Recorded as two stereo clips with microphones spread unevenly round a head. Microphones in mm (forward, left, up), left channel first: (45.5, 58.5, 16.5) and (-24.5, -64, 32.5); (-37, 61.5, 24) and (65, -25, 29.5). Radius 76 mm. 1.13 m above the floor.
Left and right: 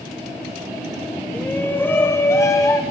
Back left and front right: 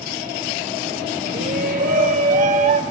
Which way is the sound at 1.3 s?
20° right.